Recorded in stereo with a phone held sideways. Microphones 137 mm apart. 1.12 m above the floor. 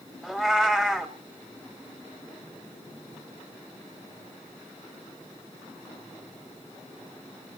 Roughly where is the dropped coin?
No dropped coin in this recording.